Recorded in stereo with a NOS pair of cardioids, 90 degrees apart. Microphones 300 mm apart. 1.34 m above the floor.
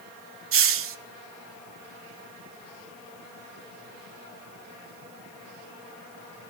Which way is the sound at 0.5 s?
50° right.